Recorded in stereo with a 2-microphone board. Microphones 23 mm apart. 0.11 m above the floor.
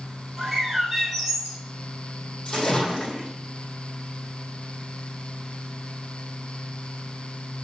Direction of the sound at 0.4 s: 10° right (ahead or behind).